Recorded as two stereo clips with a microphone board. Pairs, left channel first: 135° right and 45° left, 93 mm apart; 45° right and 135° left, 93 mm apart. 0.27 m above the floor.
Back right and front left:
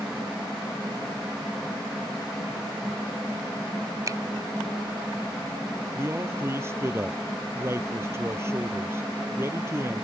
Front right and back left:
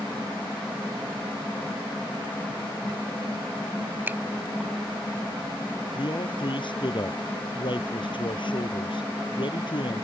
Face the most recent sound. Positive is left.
turn(degrees=-15)